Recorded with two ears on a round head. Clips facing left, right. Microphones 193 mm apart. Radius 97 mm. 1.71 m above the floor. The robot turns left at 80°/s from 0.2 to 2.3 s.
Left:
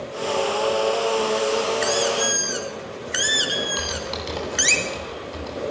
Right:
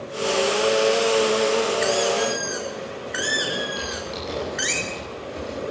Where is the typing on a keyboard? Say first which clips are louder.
Left 1 dB; 65° left (ahead or behind), 9 m.